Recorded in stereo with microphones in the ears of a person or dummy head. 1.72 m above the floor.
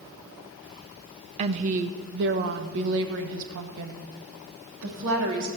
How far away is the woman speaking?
About 0.8 m.